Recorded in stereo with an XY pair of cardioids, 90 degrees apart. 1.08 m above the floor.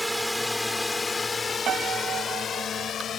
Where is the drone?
Straight ahead; by 3.2 s 65° left.